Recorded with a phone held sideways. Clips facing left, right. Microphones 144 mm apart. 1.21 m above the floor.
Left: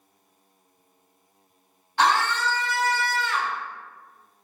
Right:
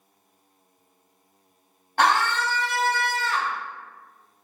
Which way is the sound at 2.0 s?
55° right (ahead or behind).